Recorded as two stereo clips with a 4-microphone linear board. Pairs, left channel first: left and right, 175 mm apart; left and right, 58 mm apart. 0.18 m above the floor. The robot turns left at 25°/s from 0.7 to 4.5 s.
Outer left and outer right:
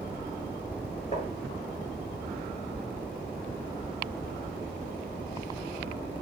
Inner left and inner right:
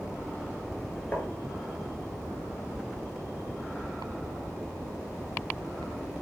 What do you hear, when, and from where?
1.1 s tapping: 35° left (ahead or behind), 3.5 m; by 1.3 s 40° left (ahead or behind), 3.5 m